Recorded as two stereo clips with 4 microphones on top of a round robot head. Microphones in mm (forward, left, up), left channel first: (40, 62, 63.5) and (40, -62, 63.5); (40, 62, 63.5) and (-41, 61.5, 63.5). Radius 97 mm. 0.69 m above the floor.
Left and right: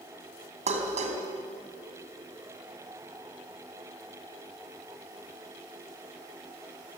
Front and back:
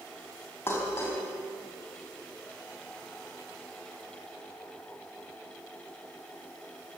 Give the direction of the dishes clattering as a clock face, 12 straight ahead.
2 o'clock.